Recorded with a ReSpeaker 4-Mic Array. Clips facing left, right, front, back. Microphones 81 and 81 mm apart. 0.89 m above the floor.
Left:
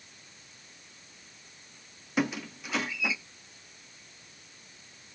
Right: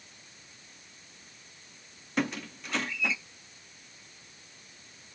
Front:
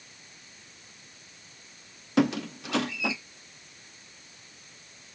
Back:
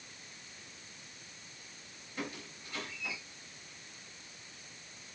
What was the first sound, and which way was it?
A squeak, 5° left.